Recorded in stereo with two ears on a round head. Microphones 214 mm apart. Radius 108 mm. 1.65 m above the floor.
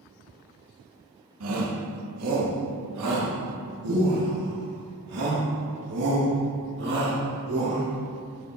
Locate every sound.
1.4 s a shout: 65° right (ahead or behind), 3 m; by 7.9 s 70° right (ahead or behind), 6 m